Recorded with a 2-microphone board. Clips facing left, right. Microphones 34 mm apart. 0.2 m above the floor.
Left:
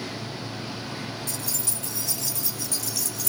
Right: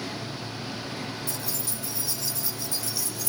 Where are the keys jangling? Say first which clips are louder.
Left 1 dB; 70° left (ahead or behind), 3 m.